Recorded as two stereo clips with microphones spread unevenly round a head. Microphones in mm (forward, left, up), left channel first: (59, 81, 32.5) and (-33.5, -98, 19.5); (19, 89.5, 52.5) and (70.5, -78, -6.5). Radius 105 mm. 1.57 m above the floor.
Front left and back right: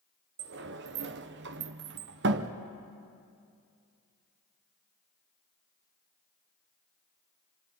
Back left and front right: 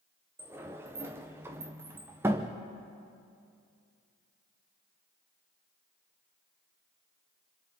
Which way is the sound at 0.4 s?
160° right.